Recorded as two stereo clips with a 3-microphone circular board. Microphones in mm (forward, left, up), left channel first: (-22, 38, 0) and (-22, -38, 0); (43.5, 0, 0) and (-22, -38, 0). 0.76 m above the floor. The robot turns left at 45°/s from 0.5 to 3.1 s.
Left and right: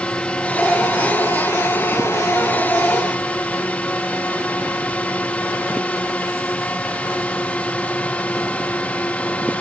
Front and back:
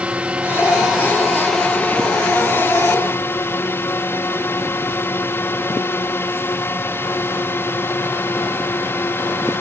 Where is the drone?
155° left; by 9.6 s 35° left.